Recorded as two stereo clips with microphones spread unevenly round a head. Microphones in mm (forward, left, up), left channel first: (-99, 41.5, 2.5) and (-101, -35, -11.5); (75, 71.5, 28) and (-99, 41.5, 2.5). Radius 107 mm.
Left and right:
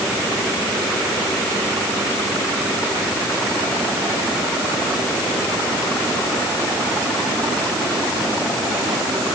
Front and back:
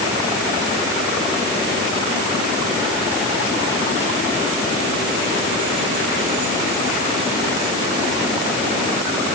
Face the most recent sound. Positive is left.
No sound to turn to.